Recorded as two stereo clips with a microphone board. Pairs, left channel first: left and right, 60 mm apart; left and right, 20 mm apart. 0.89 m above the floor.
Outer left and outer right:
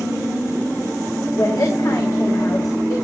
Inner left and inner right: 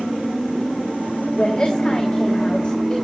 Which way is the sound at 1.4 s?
70° left (ahead or behind).